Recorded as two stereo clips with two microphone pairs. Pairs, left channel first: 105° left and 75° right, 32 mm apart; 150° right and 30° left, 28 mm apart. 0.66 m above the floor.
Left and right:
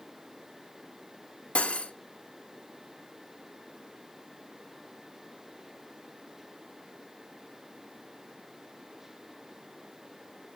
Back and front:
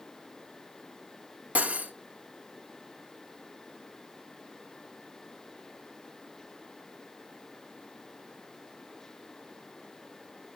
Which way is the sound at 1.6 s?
55° left.